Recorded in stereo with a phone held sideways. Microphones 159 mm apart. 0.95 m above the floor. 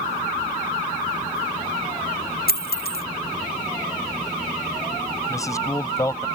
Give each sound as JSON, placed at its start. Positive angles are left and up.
{"t": 2.5, "sound": "a dropped coin", "side_deg": 75}
{"t": 5.3, "sound": "a man speaking", "side_deg": 20}